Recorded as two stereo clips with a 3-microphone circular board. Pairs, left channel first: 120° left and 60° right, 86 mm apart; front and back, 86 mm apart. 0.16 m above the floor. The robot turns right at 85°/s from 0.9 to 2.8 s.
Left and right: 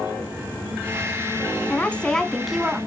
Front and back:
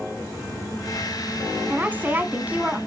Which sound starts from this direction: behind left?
A woman speaking, at 1.7 s.